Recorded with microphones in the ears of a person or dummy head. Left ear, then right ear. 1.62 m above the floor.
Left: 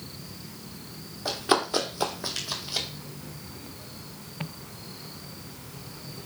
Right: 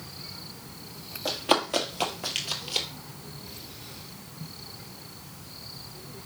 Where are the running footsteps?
20° right (ahead or behind), 2 m; by 2.9 s 45° right (ahead or behind), 2 m.